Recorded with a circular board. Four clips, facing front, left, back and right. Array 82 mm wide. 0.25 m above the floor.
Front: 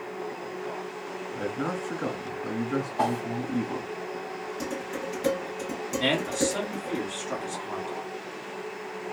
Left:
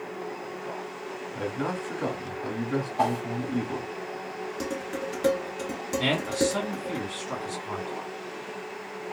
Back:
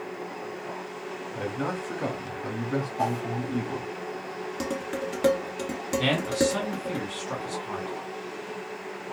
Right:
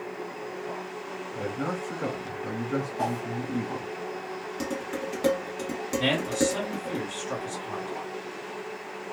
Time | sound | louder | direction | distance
1.4 | a man speaking | left 1 dB, even | 145° left | 1.3 m
3.0 | a whoosh | left 7 dB, front 2 dB | 50° left | 0.8 m
4.6 | dishes clattering | right 1 dB, back 4 dB | 165° right | 1.1 m
6.0 | a man speaking | even, back 1 dB | 150° left | 1.8 m